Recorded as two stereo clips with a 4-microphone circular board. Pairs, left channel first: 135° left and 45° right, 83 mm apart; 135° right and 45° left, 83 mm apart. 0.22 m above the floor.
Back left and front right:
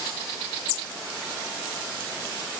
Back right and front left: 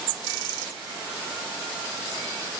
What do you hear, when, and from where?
Only background noise.